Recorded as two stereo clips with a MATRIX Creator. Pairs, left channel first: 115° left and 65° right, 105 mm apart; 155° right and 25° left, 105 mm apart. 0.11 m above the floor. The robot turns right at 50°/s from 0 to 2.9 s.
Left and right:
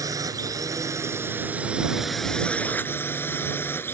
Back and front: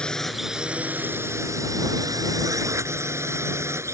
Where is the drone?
85° right; by 4.0 s 60° left.